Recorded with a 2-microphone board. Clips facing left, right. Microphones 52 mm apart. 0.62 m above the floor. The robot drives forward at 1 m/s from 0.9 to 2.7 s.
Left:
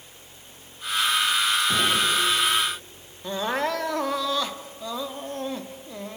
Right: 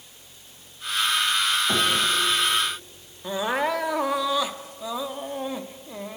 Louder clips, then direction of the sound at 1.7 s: Even; 65° right (ahead or behind).